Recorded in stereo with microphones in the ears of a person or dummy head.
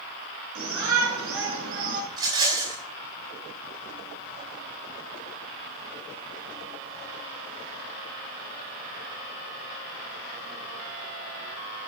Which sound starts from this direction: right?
A shout, at 0.6 s.